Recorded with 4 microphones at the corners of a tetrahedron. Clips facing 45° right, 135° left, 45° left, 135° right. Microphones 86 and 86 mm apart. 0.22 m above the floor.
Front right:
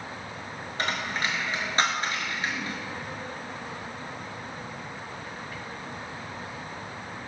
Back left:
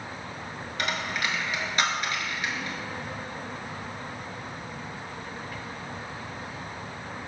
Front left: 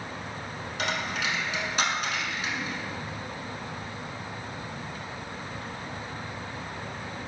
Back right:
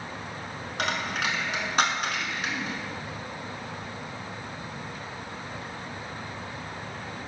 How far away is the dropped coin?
About 0.6 m.